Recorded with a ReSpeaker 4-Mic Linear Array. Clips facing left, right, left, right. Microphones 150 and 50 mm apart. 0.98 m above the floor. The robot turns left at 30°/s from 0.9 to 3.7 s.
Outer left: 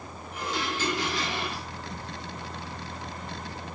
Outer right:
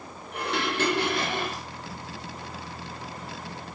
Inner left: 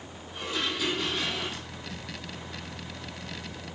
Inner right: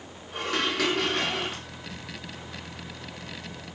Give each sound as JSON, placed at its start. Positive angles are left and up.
{"t": 0.3, "sound": "dishes clattering", "side_deg": -65, "distance_m": 1.4}